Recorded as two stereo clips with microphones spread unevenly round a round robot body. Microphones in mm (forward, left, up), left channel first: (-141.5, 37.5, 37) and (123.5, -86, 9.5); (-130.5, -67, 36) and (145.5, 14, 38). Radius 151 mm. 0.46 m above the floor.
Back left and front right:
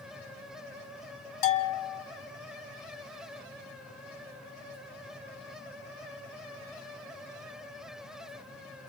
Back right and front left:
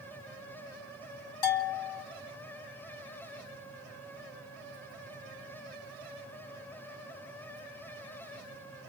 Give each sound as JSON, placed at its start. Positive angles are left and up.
{"t": 1.4, "sound": "a bell", "azimuth_deg": 180, "distance_m": 1.9}